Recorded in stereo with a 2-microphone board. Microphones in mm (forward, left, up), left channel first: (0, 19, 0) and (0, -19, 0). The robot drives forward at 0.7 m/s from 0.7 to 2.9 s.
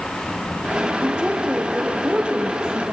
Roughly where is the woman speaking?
Right.